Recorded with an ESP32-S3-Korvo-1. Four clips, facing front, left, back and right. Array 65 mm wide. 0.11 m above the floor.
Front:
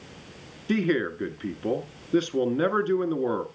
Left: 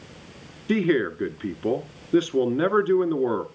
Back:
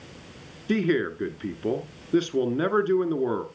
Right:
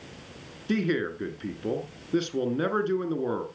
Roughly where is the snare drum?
I don't hear a snare drum.